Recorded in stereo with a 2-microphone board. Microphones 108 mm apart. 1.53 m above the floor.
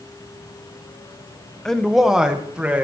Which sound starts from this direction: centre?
A man speaking, at 1.6 s.